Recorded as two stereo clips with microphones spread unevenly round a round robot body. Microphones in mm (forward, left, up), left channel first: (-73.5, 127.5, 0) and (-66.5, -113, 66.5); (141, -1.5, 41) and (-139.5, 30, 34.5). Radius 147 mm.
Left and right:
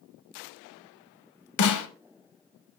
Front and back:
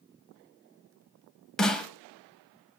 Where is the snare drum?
80° left, 0.8 m.